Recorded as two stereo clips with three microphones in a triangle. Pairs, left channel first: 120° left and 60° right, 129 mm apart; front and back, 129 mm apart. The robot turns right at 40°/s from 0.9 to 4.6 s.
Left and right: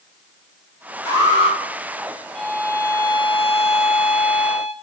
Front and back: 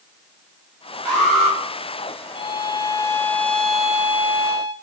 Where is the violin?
35° left, 0.6 m; by 4.7 s 125° left, 0.6 m.